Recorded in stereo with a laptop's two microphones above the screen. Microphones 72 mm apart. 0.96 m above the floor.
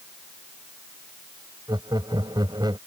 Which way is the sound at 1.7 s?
70° right (ahead or behind).